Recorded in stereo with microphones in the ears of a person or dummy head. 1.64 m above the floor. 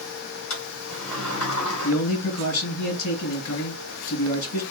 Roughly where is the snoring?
I don't hear snoring.